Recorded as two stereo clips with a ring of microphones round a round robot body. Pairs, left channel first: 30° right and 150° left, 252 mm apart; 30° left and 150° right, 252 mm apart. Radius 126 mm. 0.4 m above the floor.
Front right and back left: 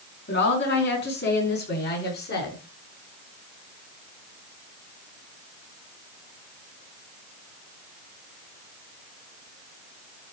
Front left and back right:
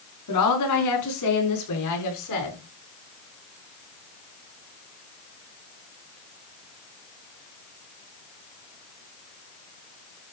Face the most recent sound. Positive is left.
turn(degrees=20)